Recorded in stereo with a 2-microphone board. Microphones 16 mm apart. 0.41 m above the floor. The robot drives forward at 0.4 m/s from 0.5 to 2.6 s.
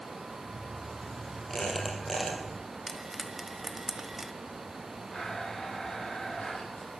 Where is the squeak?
30° left (ahead or behind), 4.5 m; by 2.4 s 25° left (ahead or behind), 4.5 m.